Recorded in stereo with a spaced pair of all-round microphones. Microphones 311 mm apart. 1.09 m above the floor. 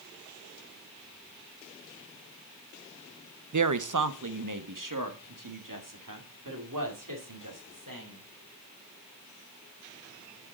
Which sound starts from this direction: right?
A woman speaking, at 3.5 s.